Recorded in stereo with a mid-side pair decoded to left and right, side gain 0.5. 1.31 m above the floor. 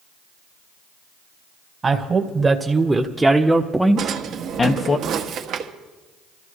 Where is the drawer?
65° right, 1.4 m.